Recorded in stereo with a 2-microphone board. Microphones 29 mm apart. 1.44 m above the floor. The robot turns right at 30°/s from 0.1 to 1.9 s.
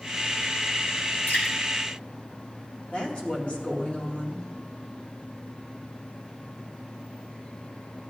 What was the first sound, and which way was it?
Dripping, 75° left (ahead or behind).